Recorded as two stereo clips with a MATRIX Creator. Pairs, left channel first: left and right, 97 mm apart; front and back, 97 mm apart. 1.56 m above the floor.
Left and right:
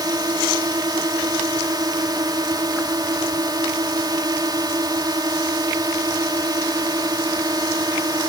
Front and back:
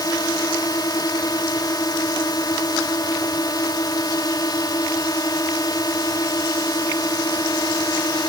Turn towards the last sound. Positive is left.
turn(degrees=-45)